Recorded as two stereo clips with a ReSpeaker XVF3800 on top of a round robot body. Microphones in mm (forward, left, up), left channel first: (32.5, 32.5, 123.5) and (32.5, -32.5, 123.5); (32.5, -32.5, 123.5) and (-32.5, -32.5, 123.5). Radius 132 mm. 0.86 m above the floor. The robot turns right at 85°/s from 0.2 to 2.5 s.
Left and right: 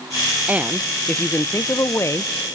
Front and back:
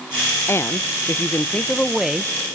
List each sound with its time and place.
0.5 s a woman speaking: 35° right, 0.5 m; by 2.3 s 120° left, 0.5 m